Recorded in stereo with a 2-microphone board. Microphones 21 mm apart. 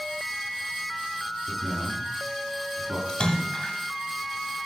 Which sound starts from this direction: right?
A man speaking, at 1.5 s.